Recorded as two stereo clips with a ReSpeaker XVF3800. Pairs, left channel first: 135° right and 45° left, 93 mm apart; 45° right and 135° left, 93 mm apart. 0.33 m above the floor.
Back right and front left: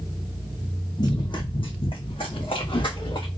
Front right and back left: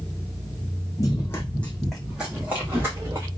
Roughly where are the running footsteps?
Right.